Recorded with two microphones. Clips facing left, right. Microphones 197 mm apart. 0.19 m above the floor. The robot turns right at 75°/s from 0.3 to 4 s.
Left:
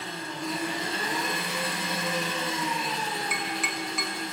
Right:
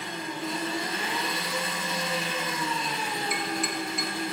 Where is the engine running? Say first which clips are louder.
Right 1 dB; 15° right, 2.0 m; by 4.3 s 95° right, 2.0 m.